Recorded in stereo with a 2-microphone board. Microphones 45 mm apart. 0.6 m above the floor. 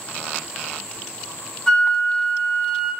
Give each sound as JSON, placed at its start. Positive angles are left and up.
{"t": 1.7, "sound": "a flute", "side_deg": 15, "distance_m": 0.5}